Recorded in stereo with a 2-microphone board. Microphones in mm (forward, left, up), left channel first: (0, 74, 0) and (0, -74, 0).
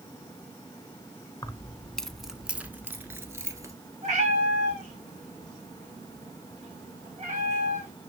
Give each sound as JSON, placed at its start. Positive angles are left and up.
{"t": 1.4, "sound": "keys jangling", "side_deg": 25, "distance_m": 0.7}
{"t": 4.0, "sound": "a cat meowing", "side_deg": -50, "distance_m": 5.0}